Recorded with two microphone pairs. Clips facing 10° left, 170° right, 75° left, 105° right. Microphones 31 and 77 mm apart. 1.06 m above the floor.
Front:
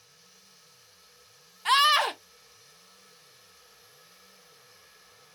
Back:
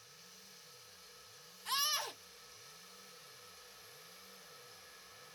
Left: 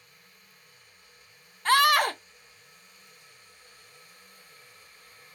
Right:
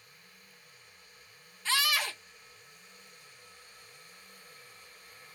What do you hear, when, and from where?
1.6 s a scream: 40° left